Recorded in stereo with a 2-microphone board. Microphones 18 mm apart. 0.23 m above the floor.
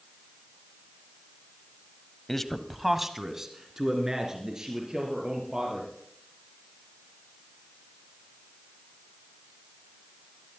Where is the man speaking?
20° left (ahead or behind), 0.9 m; by 5.9 s 35° right (ahead or behind), 5 m.